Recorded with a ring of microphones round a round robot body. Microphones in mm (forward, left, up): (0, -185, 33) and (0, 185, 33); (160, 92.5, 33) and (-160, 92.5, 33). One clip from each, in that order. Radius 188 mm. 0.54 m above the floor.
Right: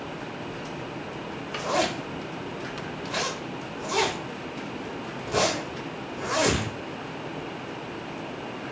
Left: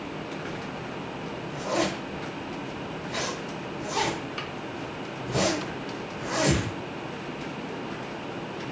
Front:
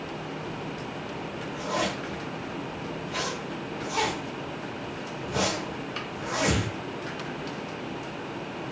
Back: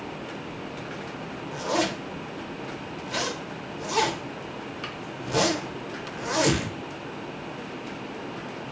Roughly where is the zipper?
Behind.